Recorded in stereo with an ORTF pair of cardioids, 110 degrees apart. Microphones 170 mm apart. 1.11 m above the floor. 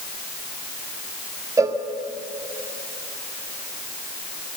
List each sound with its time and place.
1.6 s a cowbell: 20° right, 1.4 m